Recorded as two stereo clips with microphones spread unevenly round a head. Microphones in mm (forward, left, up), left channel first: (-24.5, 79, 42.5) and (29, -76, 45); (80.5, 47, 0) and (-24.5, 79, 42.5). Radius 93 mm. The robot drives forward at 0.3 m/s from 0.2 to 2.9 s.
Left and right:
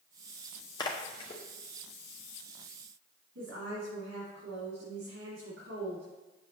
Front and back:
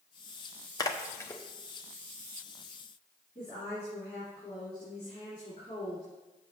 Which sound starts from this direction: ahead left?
A splash, at 0.8 s.